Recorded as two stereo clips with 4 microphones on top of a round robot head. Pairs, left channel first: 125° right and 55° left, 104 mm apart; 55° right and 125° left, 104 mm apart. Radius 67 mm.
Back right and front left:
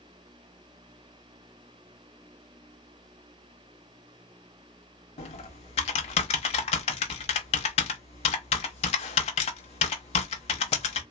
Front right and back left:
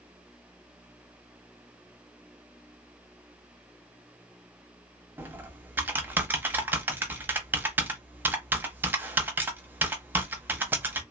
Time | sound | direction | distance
5.2 | typing on a keyboard | 160° right | 0.7 m